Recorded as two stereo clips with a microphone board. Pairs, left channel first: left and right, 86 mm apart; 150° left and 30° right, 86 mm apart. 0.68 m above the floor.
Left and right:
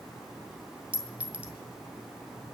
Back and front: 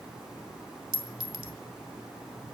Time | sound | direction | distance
0.9 | a clink | 15° right | 1.5 m